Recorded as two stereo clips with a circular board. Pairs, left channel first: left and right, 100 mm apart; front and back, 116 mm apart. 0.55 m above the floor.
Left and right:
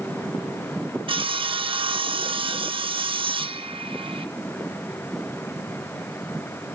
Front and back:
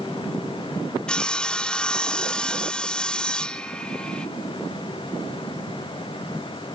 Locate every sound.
1.1 s sawing: 80° right, 0.6 m